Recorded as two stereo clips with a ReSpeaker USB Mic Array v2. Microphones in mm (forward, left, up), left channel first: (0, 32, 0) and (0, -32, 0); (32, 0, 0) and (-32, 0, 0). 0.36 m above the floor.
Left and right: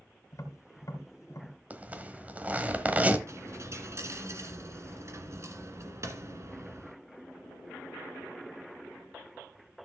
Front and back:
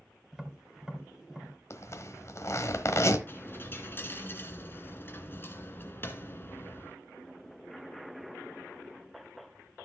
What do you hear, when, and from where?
0.3 s tapping: 95° left, 2 m
1.7 s a zipper: 30° right, 1.2 m
3.3 s a dropped coin: 55° right, 1.7 m